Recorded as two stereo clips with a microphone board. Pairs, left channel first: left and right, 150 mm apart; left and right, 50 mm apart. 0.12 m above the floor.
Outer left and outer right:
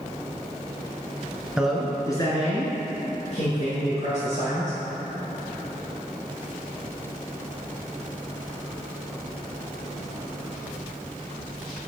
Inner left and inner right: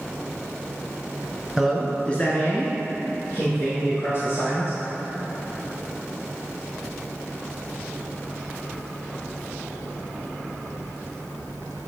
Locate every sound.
1.6 s a man speaking: 5° right (ahead or behind), 1.2 m; by 4.8 s 50° left (ahead or behind), 4 m